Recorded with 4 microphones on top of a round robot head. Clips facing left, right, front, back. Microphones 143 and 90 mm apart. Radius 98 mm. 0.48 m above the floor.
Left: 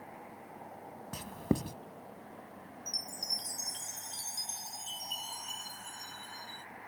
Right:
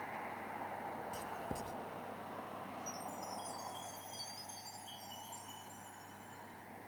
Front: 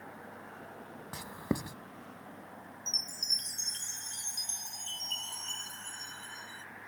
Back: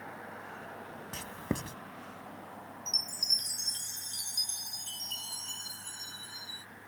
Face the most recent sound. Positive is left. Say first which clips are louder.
# right 3 dB, back 2 dB
turn(degrees=100)